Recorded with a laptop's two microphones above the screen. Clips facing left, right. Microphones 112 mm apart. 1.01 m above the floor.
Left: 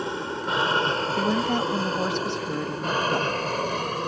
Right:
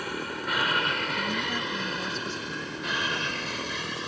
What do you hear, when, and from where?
0.0 s an aircraft: 25° left (ahead or behind); by 4.1 s 50° left (ahead or behind)
1.2 s a woman speaking: 65° left (ahead or behind)